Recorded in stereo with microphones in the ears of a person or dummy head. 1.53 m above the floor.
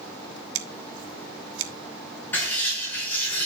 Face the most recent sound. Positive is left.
turn(degrees=10)  # may be behind; listen again after turning